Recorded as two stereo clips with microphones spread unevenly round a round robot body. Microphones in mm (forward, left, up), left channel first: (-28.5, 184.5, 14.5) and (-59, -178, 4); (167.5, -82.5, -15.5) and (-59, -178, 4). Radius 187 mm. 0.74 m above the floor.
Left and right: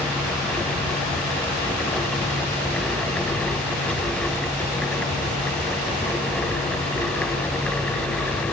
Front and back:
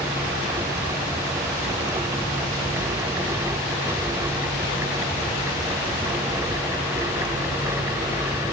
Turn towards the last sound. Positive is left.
No sound to turn to.